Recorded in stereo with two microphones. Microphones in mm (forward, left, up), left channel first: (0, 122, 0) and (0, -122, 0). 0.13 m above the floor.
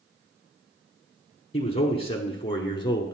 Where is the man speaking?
25° left (ahead or behind), 1.2 m; by 3.1 s 15° left (ahead or behind), 1.3 m.